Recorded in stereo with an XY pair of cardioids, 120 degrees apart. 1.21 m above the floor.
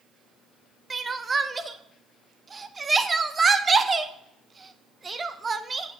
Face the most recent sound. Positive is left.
turn(degrees=-25)